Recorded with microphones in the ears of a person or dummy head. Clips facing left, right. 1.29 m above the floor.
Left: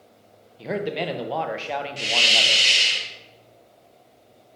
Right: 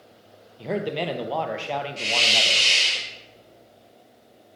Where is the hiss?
20° left (ahead or behind), 1.2 m.